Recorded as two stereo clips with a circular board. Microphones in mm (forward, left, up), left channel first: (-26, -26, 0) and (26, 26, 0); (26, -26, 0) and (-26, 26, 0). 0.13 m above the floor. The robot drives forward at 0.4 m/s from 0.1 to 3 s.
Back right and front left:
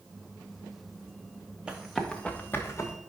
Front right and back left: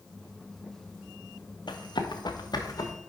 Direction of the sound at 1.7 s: 35° right.